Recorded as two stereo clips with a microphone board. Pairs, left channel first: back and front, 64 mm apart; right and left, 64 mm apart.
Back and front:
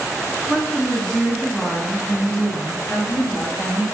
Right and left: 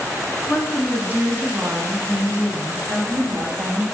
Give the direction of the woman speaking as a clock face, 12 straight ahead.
12 o'clock.